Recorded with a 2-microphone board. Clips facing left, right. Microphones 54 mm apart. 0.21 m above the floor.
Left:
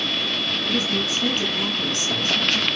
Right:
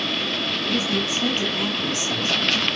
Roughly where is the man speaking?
Centre.